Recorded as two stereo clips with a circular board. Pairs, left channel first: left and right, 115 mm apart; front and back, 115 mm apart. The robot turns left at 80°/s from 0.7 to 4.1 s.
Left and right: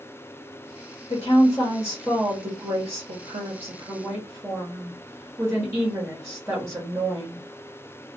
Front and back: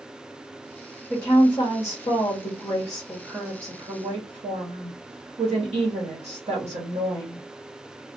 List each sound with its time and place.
1.1 s a woman speaking: 85° left, 1.2 m; by 7.5 s 155° right, 1.2 m